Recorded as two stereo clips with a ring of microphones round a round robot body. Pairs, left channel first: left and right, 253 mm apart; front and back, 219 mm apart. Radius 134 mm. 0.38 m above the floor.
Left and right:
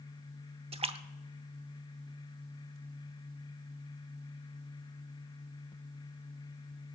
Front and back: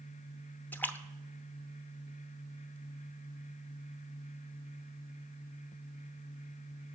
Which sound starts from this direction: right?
A splash, at 0.7 s.